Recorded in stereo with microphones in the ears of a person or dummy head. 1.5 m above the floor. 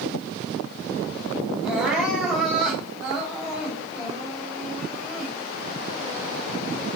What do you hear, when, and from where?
1.6 s crying: centre (ahead or behind), 5.5 m